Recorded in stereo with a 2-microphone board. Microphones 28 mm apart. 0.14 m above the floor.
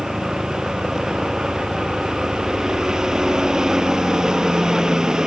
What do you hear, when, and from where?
0.0 s a helicopter: 20° right (ahead or behind); by 5.3 s 25° right (ahead or behind)